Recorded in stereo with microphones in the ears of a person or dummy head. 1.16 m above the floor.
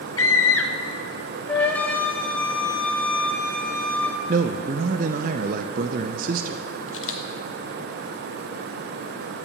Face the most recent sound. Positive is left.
turn(degrees=75)  # may be behind; listen again after turning